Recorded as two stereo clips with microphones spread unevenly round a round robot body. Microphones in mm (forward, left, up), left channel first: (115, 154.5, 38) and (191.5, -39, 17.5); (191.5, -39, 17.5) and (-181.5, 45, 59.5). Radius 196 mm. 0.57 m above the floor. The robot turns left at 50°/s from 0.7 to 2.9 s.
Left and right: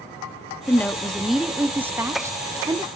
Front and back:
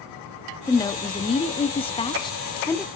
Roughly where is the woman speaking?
Ahead left.